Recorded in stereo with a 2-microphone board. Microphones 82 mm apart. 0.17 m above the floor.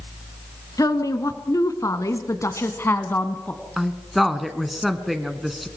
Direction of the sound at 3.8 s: Centre (ahead or behind).